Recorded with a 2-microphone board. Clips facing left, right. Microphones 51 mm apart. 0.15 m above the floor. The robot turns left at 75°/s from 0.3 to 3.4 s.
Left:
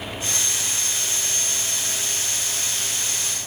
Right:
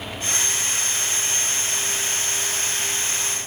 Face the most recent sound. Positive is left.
No sound to turn to.